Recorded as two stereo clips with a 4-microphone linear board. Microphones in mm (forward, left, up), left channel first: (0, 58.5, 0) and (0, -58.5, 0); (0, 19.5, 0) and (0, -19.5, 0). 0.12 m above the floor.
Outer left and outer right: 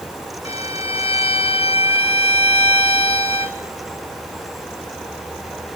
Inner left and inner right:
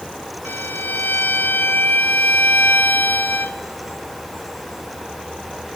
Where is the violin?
60° left (ahead or behind), 1.0 m.